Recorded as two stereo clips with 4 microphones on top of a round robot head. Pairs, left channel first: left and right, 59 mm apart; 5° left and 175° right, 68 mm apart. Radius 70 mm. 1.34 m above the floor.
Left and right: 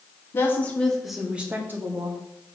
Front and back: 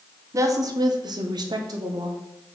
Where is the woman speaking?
145° left, 1.2 m; by 2.2 s 135° right, 1.5 m.